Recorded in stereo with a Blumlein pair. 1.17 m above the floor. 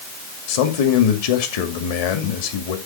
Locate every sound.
0.5 s a man speaking: 50° left, 2.5 m